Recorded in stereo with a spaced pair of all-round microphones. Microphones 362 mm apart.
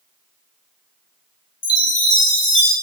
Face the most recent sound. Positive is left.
turn(degrees=60)  # may be behind; listen again after turning